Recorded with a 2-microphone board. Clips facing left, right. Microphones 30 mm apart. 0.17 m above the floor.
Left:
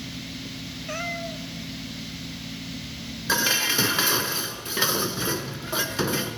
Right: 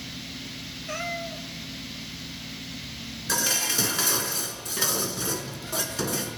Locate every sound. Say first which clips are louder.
0.9 s a cat meowing: left 1 dB; 5° left (ahead or behind), 1.1 m
3.3 s dishes clattering: left 4 dB; 25° left (ahead or behind), 1.3 m